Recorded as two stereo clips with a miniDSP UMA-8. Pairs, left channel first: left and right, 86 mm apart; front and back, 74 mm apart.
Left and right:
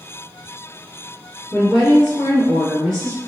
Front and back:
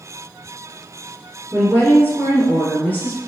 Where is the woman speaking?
15° left, 1.8 m.